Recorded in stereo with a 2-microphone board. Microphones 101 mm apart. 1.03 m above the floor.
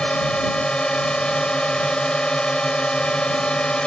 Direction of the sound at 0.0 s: 10° left (ahead or behind).